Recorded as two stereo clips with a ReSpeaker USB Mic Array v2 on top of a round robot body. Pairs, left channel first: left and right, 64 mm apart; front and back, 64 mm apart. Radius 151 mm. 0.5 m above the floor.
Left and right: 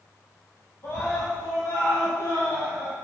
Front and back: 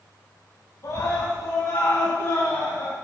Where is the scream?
40° left, 4.5 m; by 3.0 s 60° left, 5 m.